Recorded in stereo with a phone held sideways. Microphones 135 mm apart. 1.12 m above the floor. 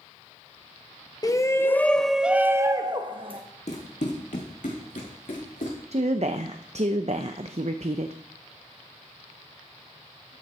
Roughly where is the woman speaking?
Right.